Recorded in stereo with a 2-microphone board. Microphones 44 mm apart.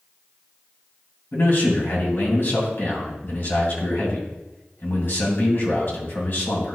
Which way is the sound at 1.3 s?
50° left (ahead or behind).